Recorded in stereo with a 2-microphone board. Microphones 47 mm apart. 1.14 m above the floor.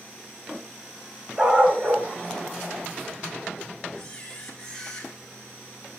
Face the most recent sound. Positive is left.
turn(degrees=15)  # may be behind; listen again after turning